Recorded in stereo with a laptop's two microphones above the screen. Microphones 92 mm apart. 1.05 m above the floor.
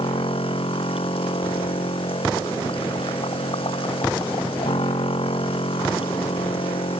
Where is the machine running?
80° left.